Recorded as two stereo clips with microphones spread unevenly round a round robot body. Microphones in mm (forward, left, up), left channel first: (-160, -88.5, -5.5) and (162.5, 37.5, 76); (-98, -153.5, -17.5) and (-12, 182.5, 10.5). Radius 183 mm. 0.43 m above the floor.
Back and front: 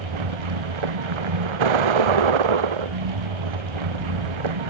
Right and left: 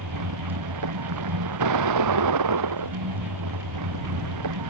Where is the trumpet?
I don't hear a trumpet.